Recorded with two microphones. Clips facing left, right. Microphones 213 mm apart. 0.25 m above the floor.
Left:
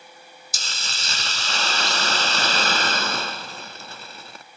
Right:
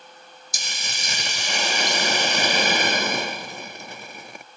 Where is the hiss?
15° right (ahead or behind).